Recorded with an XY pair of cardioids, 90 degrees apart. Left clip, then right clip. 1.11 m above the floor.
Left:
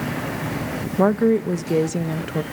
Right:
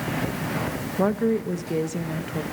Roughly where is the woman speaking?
Ahead left.